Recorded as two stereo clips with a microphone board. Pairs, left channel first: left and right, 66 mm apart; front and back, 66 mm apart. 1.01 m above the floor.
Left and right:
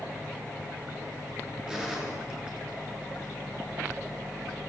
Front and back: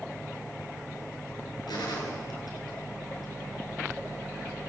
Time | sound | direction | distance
1.7 | a gunshot | 10° right | 9 m